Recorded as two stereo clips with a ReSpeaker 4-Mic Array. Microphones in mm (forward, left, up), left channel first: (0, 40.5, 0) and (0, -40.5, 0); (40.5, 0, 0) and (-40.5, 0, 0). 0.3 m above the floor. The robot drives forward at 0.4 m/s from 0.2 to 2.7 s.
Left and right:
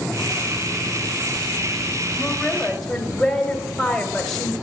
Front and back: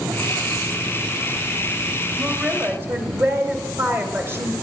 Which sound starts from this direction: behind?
A woman speaking, at 2.2 s.